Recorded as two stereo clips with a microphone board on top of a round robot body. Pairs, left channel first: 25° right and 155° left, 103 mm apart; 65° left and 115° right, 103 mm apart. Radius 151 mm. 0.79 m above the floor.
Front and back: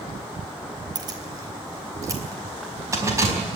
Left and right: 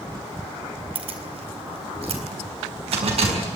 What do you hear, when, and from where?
0.9 s keys jangling: 150° right, 3 m; by 3.4 s 140° right, 5 m